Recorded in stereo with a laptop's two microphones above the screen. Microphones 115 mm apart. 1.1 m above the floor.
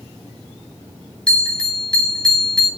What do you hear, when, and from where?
1.3 s a bell: 5° left (ahead or behind), 3.5 m